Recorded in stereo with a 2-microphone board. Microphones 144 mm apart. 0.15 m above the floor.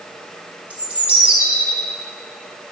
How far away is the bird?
About 2.5 m.